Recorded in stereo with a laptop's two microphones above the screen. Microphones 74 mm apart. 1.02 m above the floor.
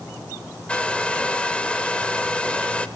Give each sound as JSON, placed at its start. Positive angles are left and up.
{"t": 0.7, "sound": "a hair dryer", "side_deg": 15, "distance_m": 0.8}